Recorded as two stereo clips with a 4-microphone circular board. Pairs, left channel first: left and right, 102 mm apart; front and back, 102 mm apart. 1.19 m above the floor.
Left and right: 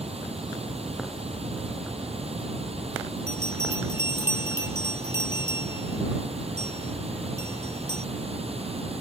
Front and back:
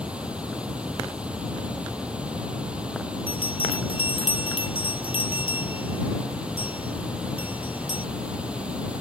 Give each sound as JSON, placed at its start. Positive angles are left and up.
{"t": 0.0, "sound": "running water", "azimuth_deg": -100}
{"t": 3.3, "sound": "a bell", "azimuth_deg": -25}